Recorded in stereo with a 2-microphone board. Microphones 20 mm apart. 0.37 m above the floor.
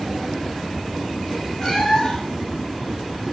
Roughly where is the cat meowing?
Left.